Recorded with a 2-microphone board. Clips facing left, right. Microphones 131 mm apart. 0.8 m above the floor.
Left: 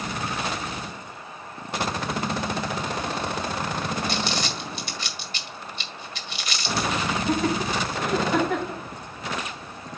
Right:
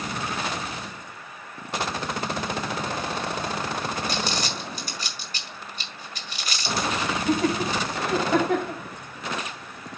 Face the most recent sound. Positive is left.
turn(degrees=-75)  # may be behind; listen again after turning